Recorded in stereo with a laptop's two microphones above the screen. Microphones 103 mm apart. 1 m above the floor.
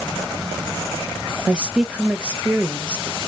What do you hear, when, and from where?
1.5 s a woman speaking: 10° right (ahead or behind), 0.7 m